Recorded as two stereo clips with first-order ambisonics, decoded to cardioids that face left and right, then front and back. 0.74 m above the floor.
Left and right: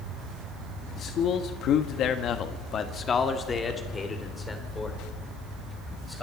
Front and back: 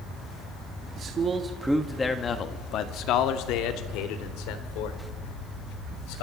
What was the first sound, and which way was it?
A man speaking, 135° left.